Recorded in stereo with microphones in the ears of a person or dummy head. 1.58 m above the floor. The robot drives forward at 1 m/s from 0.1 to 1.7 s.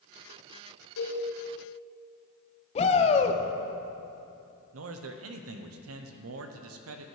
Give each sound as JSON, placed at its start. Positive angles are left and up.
{"t": 1.0, "sound": "a cowbell", "side_deg": 85, "distance_m": 3.0}
{"t": 2.8, "sound": "a shout", "side_deg": 30, "distance_m": 1.1}
{"t": 4.7, "sound": "a man speaking", "side_deg": -85, "distance_m": 0.8}